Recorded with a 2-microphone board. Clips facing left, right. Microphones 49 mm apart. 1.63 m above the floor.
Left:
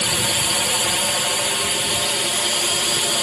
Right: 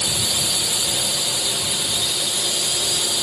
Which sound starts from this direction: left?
A drone, at 0.0 s.